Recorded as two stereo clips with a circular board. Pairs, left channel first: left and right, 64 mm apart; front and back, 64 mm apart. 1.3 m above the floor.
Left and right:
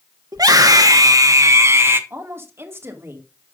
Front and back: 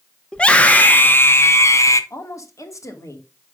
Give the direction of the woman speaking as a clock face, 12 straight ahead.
1 o'clock.